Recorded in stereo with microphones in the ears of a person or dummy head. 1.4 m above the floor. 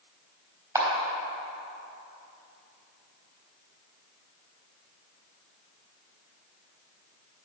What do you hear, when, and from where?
0.8 s a camera shutter: 15° right (ahead or behind), 3.5 m